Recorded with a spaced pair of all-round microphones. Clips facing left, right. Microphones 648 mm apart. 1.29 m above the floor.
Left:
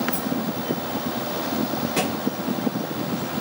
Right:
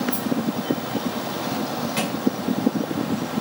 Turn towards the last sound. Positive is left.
turn(degrees=65)  # may be behind; listen again after turning